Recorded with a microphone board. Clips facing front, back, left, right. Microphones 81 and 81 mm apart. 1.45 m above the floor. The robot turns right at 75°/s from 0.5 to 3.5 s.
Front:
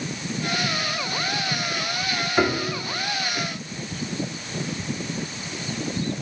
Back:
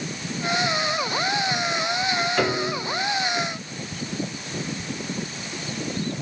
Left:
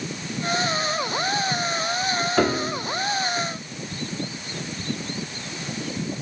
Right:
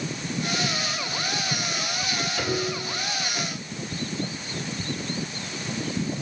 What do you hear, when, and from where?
2.4 s a piano: 70° left, 3 m; by 2.9 s 110° left, 3 m